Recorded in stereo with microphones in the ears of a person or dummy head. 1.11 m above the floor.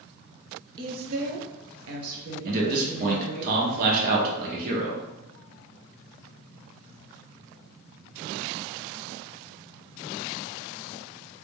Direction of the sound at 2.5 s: 40° right (ahead or behind).